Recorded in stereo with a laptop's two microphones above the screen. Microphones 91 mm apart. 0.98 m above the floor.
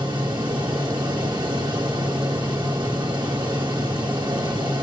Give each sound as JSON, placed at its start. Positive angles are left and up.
{"t": 0.0, "sound": "a fan", "side_deg": -60, "distance_m": 2.5}